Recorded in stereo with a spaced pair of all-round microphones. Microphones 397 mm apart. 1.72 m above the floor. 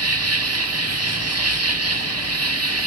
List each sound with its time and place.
0.0 s an insect: 40° right (ahead or behind), 0.9 m